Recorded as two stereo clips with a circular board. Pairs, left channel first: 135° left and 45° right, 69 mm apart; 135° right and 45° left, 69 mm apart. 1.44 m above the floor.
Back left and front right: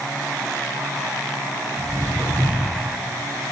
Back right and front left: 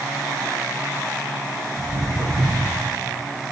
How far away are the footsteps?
About 2.5 m.